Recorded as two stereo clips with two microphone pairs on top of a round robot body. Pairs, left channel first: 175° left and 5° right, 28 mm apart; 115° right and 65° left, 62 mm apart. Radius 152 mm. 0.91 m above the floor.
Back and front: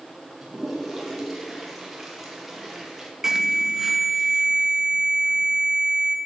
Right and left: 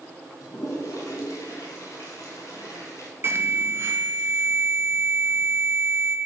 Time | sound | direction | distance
0.4 | a toilet flushing | 85° right | 2.5 m
3.2 | an alarm | 45° left | 1.3 m